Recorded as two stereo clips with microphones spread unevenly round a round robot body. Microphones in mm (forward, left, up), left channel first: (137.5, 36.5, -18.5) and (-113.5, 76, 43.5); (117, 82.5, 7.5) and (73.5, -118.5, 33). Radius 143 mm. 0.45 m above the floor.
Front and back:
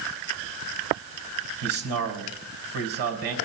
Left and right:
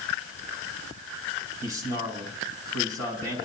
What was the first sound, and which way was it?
A man speaking, 135° left.